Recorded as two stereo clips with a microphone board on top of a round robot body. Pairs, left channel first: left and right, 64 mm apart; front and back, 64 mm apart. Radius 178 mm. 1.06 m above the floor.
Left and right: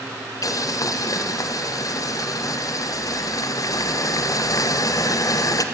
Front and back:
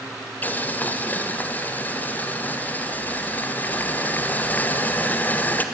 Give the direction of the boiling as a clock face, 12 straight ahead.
10 o'clock.